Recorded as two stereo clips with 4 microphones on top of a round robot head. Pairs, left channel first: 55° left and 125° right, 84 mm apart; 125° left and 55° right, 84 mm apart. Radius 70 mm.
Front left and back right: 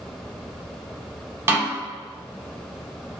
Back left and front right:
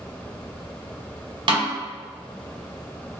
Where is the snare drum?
65° right, 1.0 m.